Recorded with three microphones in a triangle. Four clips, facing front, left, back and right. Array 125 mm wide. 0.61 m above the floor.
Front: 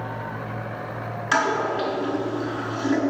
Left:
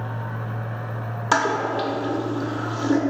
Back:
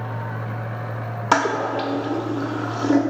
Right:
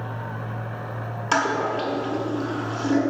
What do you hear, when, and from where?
1.3 s a toilet flushing: 170° left, 0.6 m